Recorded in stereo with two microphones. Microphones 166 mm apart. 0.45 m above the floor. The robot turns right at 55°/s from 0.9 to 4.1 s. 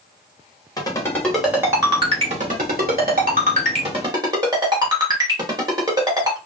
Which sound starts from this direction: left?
A ringtone, at 0.8 s.